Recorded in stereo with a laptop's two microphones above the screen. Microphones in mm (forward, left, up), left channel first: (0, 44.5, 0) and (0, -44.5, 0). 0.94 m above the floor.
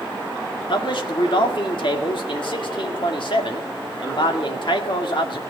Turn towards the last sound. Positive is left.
turn(degrees=65)  # may be behind; listen again after turning